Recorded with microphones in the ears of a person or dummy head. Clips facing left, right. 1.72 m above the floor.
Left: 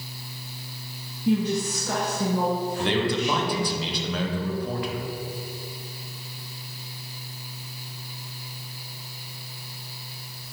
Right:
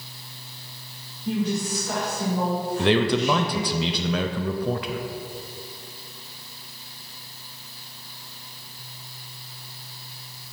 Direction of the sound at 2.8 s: 60° right (ahead or behind).